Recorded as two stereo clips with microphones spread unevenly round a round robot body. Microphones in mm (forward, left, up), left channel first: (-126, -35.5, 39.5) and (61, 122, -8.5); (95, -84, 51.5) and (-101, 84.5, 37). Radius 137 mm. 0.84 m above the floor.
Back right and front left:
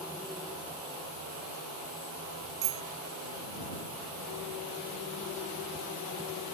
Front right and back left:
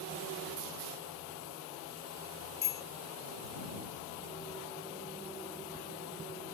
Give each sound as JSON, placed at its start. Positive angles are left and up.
{"t": 2.6, "sound": "a bicycle bell", "azimuth_deg": 15}